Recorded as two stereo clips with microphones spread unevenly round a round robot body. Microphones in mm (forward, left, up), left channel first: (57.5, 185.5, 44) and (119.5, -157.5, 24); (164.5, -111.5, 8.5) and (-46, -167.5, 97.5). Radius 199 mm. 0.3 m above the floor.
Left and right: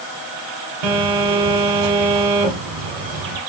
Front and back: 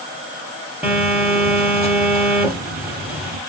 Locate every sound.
0.8 s a phone buzzing: 85° right, 2.5 m